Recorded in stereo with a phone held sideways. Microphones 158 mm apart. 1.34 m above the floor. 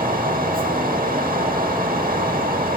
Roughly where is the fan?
Right.